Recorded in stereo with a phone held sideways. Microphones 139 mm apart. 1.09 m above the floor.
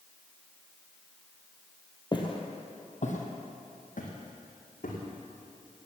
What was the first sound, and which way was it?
Footsteps, 30° left (ahead or behind).